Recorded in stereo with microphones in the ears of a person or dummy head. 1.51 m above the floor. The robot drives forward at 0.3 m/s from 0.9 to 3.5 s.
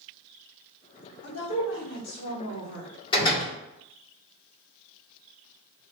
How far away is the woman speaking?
About 1.6 m.